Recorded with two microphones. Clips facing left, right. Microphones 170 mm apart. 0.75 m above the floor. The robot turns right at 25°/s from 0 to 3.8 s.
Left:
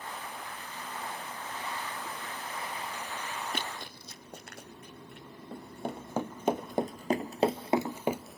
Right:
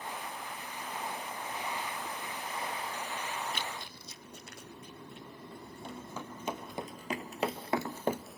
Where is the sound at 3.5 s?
50° left (ahead or behind), 1.2 m; by 5.3 s 65° left (ahead or behind), 3.5 m.